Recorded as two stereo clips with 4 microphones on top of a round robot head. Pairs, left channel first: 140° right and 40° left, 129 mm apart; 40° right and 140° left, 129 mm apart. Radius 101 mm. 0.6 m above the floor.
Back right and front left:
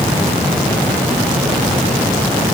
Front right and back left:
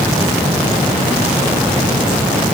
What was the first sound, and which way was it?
Only background noise.